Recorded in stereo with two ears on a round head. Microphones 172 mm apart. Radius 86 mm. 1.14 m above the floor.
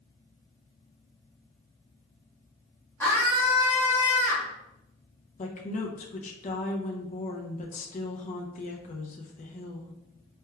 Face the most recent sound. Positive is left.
turn(degrees=40)  # may be behind; listen again after turning